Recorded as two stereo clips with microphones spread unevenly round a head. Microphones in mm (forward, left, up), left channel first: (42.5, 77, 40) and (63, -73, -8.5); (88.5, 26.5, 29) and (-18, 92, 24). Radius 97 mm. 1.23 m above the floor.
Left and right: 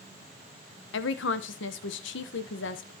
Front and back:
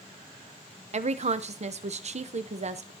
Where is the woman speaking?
120° left, 0.8 m.